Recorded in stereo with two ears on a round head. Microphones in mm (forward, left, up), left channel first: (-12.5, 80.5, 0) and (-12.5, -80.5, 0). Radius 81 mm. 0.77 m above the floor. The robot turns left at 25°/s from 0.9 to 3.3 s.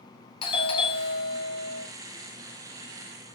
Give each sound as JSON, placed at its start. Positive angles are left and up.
{"t": 0.4, "sound": "a doorbell", "side_deg": 30, "distance_m": 1.0}